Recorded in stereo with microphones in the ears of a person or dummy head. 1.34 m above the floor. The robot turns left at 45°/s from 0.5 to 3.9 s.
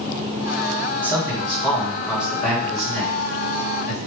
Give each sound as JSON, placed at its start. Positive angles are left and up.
{"t": 1.0, "sound": "a man speaking", "azimuth_deg": -155, "distance_m": 2.0}